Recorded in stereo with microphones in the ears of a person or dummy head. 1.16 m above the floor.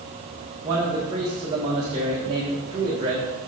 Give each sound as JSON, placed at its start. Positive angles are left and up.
{"t": 0.6, "sound": "a man speaking", "side_deg": -25, "distance_m": 1.6}